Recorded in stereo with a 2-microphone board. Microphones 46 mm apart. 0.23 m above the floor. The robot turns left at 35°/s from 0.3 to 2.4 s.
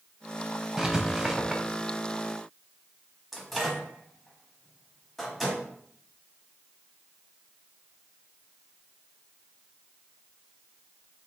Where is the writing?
15° right (ahead or behind), 0.6 m; by 1.6 s 20° right (ahead or behind), 0.6 m.